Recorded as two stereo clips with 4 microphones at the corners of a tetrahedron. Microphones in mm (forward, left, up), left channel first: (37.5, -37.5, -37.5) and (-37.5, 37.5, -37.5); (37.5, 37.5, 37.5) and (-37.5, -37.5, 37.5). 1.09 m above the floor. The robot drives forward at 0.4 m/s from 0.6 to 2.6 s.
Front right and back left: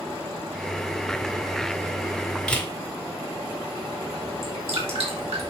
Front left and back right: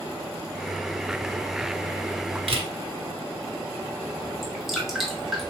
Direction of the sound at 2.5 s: 125° right.